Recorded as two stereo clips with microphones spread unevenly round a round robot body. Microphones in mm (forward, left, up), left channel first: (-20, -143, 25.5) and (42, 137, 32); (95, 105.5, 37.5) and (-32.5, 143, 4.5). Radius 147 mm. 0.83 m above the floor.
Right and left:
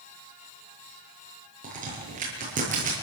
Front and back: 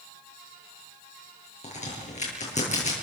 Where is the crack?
15° left, 8 m.